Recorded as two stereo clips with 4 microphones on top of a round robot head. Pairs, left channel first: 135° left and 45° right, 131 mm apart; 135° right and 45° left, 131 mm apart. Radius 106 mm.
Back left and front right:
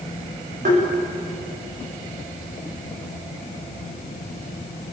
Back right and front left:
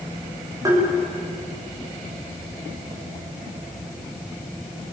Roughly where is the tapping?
Ahead right.